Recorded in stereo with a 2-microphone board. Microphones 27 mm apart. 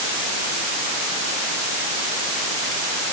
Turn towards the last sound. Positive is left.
No sound to turn to.